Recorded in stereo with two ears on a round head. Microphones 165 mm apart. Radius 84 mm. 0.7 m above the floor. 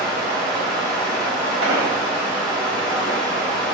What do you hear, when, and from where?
0.0 s running water: 25° right (ahead or behind), 3 m
1.6 s an explosion: 80° right, 2.5 m